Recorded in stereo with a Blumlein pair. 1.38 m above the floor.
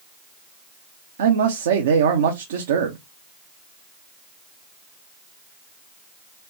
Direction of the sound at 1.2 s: 60° right.